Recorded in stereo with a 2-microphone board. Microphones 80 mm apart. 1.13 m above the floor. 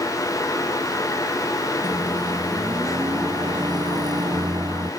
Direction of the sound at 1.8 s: 60° right (ahead or behind).